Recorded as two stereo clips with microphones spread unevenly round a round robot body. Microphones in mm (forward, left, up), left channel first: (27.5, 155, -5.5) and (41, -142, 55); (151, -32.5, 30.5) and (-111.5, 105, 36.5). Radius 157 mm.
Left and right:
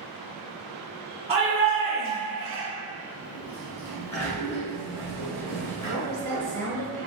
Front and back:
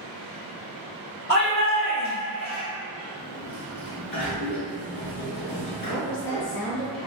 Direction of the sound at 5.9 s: 70° right.